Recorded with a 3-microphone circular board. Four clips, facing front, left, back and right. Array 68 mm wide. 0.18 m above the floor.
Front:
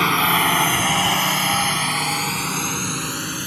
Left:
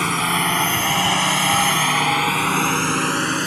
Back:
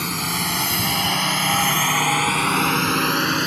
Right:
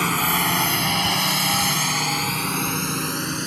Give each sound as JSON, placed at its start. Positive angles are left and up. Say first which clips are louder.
{"t": 0.0, "sound": "a drone", "louder": "left 2 dB, front 8 dB", "azimuth_deg": 5}